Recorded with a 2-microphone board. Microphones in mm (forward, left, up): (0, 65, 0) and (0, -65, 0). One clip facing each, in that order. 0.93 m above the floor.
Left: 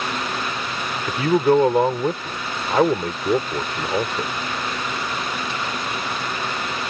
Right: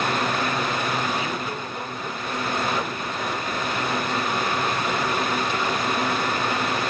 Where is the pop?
No pop in this recording.